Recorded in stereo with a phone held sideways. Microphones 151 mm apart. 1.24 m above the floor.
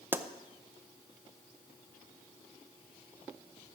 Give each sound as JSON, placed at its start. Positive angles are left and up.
{"t": 0.1, "sound": "a pop", "side_deg": -15, "distance_m": 0.5}